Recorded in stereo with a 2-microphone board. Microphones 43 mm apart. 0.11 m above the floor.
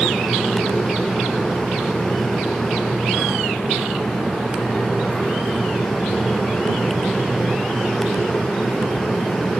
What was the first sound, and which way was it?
Only background noise.